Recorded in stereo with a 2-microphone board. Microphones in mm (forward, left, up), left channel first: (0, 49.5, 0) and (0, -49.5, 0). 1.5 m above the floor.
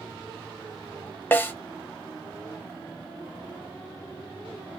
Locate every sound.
1.3 s a snare drum: 20° left (ahead or behind), 1.2 m